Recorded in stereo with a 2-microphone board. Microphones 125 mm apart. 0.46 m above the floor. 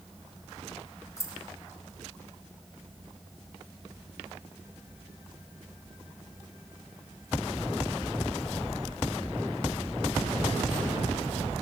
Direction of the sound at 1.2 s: 25° left (ahead or behind).